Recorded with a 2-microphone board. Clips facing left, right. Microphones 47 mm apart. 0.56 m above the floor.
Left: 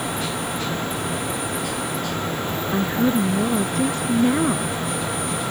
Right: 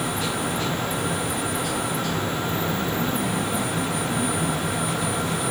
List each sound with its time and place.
2.7 s a woman speaking: 75° left (ahead or behind)